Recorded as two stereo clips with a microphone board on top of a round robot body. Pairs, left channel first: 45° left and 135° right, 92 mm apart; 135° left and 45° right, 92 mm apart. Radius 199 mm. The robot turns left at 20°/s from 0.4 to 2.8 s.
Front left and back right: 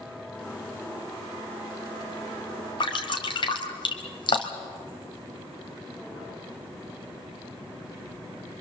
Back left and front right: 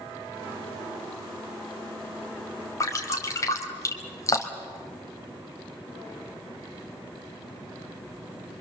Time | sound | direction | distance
2.8 | dripping | 80° left | 3 m